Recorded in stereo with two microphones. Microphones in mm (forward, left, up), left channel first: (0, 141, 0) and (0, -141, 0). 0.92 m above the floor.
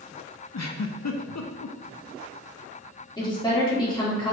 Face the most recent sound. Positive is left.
turn(degrees=15)  # may be behind; listen again after turning